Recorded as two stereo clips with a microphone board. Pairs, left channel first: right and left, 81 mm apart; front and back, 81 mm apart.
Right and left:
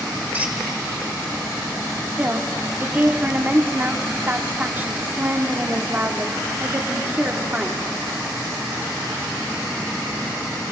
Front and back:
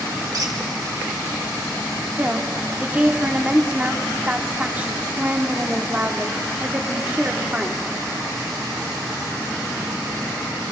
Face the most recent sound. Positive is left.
turn(degrees=130)